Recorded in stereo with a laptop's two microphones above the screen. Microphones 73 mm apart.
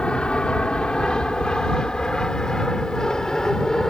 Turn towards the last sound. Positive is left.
turn(degrees=5)  # may be behind; listen again after turning